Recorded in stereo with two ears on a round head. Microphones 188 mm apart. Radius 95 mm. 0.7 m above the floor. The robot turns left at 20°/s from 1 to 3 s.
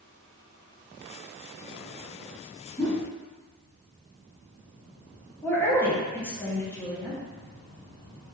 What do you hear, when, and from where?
2.8 s a whoosh: 15° left (ahead or behind), 1.7 m; by 3.0 s 20° left (ahead or behind), 1.7 m
5.4 s a woman speaking: 10° left (ahead or behind), 0.8 m